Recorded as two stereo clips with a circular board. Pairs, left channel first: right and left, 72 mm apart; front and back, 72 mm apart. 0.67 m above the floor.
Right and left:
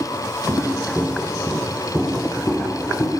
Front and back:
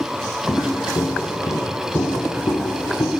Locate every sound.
0.5 s footsteps: 40° left, 2.5 m; by 3.1 s 45° right, 3 m